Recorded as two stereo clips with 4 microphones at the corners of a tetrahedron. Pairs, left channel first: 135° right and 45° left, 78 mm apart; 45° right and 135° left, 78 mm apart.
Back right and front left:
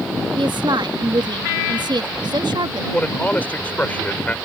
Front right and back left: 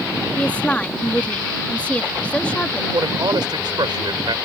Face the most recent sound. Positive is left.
turn(degrees=155)